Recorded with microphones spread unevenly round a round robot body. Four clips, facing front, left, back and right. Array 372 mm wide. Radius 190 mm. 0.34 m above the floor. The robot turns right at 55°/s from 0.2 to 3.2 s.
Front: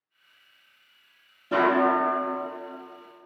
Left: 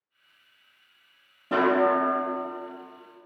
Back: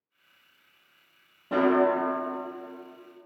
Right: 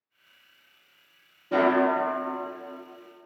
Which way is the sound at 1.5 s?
105° left.